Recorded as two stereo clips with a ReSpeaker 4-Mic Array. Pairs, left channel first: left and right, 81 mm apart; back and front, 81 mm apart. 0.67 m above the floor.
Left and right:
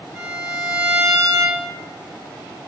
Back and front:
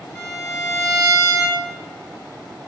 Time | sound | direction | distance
0.1 | a violin | 155° right | 0.8 m